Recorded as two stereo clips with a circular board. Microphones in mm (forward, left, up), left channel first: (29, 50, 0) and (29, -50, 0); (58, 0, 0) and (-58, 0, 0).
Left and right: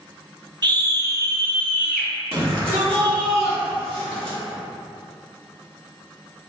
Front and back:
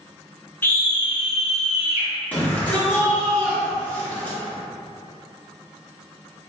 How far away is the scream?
About 0.6 m.